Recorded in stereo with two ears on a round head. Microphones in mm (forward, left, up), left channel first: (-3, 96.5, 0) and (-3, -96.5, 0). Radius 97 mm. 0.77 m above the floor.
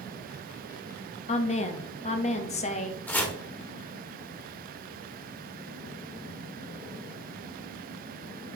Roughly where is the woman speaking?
Left.